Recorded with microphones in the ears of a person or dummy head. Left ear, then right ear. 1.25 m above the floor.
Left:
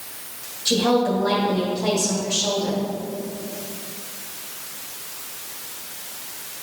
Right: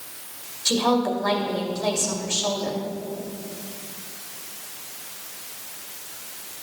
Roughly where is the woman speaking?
Right.